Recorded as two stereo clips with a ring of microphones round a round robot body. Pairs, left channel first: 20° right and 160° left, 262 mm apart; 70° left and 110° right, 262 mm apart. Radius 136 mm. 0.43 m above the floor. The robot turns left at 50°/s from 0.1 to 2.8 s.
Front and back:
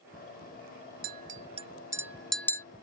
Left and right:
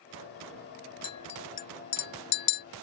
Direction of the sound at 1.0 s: 130° left.